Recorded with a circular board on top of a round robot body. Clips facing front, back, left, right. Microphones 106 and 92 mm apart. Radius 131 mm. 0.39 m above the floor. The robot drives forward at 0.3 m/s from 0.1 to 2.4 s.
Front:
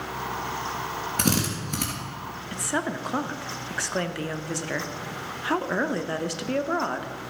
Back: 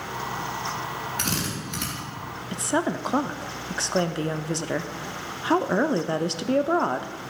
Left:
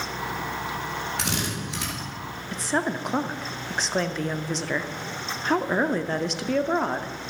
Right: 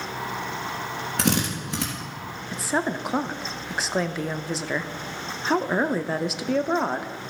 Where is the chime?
I don't hear a chime.